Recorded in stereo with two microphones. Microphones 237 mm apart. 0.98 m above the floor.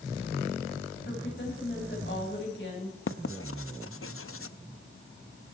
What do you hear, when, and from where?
1.1 s a woman speaking: 50° left (ahead or behind), 6 m
3.1 s writing: 60° left (ahead or behind), 0.6 m